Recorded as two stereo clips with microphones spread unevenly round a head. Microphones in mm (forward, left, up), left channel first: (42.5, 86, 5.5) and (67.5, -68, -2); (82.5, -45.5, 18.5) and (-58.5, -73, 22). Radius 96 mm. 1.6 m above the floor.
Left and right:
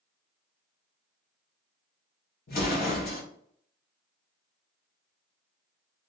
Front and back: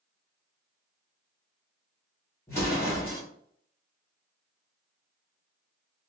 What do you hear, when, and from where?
2.5 s an explosion: 90° left, 1.3 m